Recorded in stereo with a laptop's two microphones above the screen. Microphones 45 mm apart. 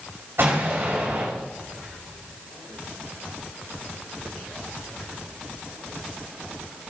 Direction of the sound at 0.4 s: 60° right (ahead or behind).